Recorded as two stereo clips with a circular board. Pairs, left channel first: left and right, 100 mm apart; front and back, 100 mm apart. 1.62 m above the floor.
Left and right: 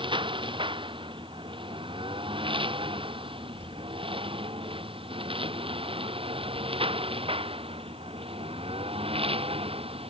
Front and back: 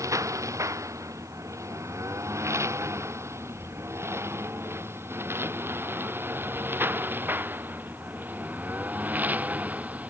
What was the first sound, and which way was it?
A lawn mower, 120° right.